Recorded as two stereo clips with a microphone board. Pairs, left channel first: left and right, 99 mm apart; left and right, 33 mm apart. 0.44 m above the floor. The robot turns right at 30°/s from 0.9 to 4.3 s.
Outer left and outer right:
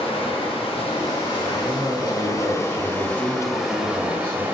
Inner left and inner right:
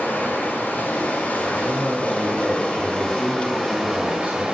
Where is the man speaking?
150° right, 2 m; by 4.4 s 60° right, 2 m.